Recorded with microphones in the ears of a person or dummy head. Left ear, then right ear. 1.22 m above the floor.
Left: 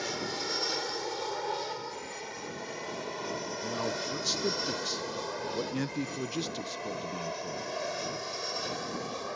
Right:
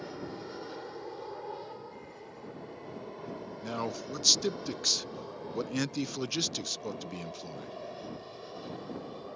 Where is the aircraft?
65° left (ahead or behind); by 9.4 s 60° left (ahead or behind).